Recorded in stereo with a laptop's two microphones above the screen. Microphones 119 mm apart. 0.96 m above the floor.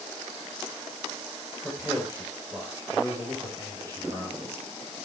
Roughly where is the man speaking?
Centre.